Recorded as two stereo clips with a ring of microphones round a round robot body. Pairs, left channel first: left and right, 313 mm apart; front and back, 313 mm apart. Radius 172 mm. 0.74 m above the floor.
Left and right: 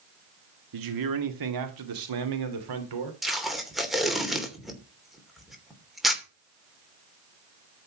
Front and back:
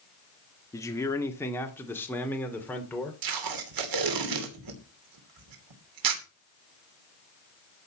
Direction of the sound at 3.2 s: Straight behind.